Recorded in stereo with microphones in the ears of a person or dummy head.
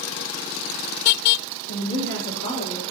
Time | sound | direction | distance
1.7 | a woman speaking | 65° left (ahead or behind) | 5.5 m